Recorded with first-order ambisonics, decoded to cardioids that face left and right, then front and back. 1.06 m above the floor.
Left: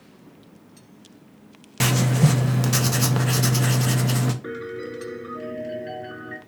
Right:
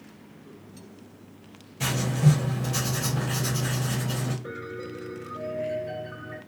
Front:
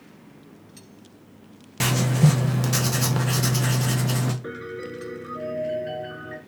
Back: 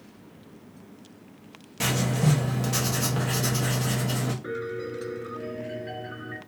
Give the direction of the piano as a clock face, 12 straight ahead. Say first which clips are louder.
Left 4 dB, back 2 dB; 10 o'clock.